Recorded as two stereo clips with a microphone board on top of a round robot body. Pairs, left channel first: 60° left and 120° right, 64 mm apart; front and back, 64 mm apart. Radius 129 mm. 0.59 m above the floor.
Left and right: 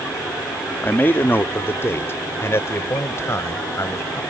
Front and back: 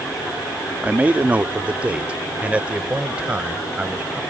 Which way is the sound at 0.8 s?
115° left.